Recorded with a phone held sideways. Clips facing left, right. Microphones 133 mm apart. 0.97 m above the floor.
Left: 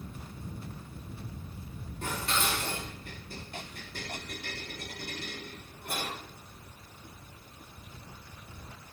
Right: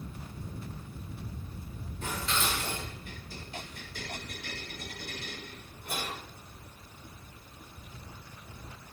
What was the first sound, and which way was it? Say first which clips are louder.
Dishes clattering: left 1 dB; 65° left (ahead or behind).